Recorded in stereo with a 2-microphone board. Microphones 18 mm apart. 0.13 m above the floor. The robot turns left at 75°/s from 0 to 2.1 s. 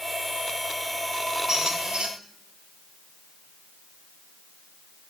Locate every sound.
1.5 s a squeak: 35° right, 1.9 m; by 2.1 s 80° right, 1.9 m